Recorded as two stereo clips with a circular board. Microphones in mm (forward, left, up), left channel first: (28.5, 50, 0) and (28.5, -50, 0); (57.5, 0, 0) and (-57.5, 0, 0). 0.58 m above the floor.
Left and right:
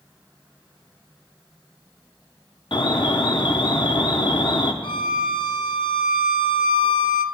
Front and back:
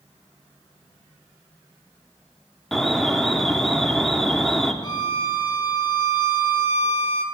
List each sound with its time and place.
2.7 s an alarm: 85° left, 0.6 m
4.8 s a violin: 55° left, 0.6 m